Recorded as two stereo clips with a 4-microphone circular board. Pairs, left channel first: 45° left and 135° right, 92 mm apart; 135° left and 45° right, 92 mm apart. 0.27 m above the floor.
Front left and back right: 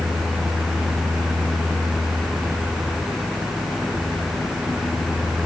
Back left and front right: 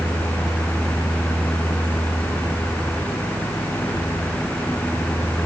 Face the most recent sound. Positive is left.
No sound to turn to.